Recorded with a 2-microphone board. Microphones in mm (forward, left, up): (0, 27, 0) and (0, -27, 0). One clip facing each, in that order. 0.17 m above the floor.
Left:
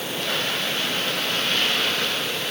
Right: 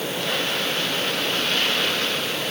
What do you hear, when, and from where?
Only background noise.